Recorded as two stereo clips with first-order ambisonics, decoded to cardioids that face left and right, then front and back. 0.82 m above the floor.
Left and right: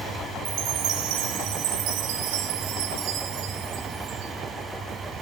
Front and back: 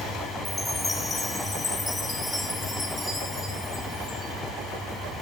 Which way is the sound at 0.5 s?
80° right.